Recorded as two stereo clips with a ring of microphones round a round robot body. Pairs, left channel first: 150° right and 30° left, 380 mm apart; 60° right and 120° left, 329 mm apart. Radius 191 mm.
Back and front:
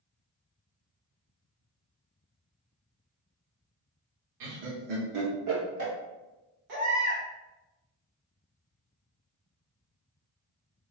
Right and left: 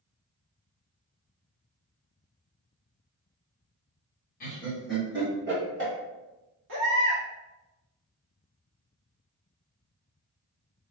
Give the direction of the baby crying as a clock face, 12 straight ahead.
10 o'clock.